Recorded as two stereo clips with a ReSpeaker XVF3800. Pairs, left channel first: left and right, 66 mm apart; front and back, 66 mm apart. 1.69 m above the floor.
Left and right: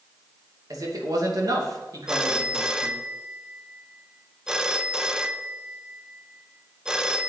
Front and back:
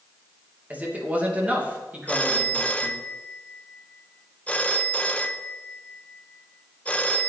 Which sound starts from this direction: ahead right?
A phone ringing, at 2.1 s.